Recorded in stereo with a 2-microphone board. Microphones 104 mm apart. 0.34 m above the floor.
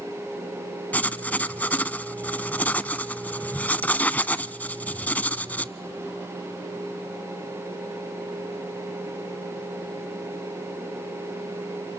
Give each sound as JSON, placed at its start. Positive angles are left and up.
{"t": 0.9, "sound": "writing", "side_deg": 15, "distance_m": 0.5}